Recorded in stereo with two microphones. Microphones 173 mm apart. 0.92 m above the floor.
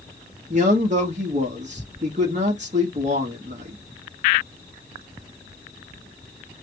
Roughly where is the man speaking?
Right.